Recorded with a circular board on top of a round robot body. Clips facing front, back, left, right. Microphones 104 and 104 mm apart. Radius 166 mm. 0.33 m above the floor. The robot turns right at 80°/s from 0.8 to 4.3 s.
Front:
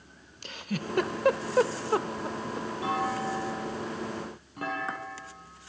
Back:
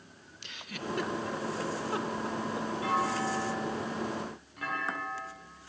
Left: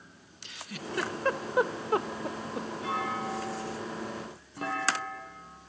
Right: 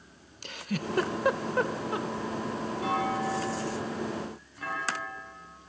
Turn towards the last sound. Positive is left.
turn(degrees=50)